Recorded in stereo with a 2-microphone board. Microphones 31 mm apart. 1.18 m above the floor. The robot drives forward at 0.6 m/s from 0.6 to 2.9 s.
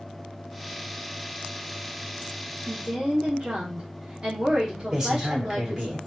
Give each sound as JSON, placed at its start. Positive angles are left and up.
{"t": 2.7, "sound": "a woman speaking", "side_deg": -30, "distance_m": 0.7}
{"t": 4.9, "sound": "a man speaking", "side_deg": -20, "distance_m": 1.2}